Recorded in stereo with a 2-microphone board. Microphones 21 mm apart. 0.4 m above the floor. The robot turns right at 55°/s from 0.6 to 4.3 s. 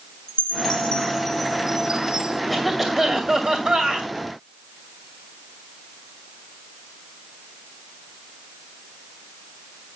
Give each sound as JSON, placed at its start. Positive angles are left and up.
{"t": 0.3, "sound": "a chime", "azimuth_deg": 130, "distance_m": 2.5}
{"t": 2.5, "sound": "a cough", "azimuth_deg": 180, "distance_m": 2.5}